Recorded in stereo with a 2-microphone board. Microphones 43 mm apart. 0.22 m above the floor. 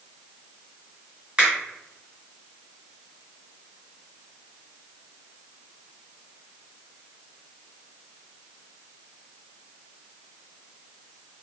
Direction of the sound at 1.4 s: 30° right (ahead or behind).